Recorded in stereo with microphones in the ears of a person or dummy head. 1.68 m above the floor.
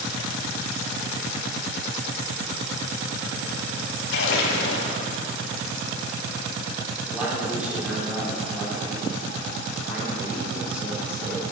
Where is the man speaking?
5° right (ahead or behind), 4.5 m.